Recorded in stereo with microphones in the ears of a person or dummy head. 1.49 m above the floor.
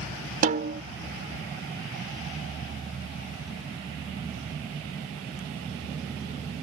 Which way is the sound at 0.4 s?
55° right (ahead or behind).